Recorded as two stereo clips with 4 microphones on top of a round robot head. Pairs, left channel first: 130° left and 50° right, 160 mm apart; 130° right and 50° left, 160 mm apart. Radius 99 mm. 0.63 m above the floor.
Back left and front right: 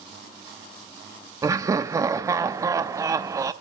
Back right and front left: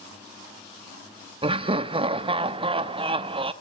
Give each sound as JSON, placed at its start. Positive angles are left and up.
{"t": 1.4, "sound": "laughter", "azimuth_deg": 15, "distance_m": 0.7}